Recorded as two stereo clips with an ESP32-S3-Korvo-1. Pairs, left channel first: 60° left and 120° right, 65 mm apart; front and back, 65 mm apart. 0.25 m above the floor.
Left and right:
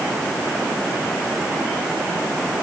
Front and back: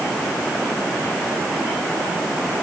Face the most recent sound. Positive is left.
No sound to turn to.